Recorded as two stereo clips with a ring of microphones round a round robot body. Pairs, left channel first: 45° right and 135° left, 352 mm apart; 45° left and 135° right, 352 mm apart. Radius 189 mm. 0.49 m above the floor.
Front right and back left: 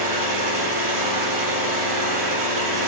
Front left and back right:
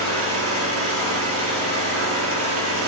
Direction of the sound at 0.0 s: 170° left.